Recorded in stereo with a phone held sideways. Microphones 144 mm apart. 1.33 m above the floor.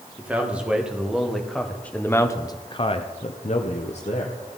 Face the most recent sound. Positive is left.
turn(degrees=45)  # may be behind; listen again after turning